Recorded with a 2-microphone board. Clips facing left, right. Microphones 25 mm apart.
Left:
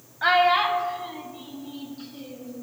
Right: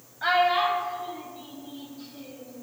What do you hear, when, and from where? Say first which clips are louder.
0.2 s a child speaking: left 3 dB; 20° left (ahead or behind), 0.5 m; by 2.5 s 50° left (ahead or behind), 1.7 m